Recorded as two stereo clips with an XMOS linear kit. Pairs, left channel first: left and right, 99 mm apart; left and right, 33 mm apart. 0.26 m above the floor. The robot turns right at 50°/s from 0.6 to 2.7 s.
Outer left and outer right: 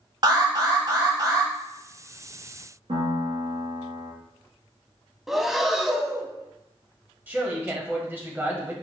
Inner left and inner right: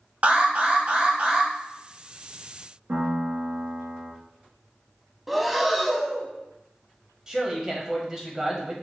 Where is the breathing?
5° right (ahead or behind), 0.6 m.